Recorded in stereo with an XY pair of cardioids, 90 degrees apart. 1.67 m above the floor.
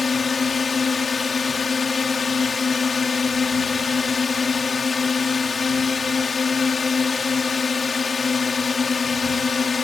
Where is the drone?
40° left.